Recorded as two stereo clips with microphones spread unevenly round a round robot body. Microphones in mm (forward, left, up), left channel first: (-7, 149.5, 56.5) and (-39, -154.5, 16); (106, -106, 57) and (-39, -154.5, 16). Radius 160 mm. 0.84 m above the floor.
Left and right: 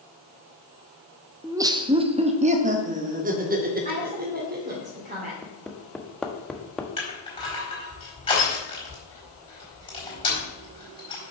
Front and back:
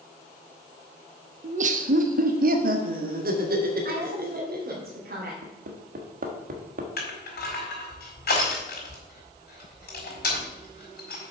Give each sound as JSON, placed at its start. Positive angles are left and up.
{"t": 1.4, "sound": "laughter", "azimuth_deg": -175, "distance_m": 0.8}
{"t": 3.9, "sound": "a woman speaking", "azimuth_deg": -160, "distance_m": 2.5}
{"t": 5.4, "sound": "hammering", "azimuth_deg": 175, "distance_m": 1.1}
{"t": 7.0, "sound": "crushing", "azimuth_deg": 10, "distance_m": 4.0}